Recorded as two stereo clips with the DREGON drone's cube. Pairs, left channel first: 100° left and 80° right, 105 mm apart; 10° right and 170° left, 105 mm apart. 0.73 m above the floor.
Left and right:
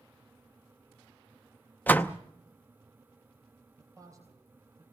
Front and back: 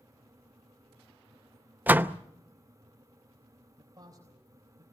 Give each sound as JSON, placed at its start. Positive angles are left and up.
{"t": 1.9, "sound": "a door slam", "azimuth_deg": 135, "distance_m": 0.6}
{"t": 3.8, "sound": "a man speaking", "azimuth_deg": -135, "distance_m": 3.5}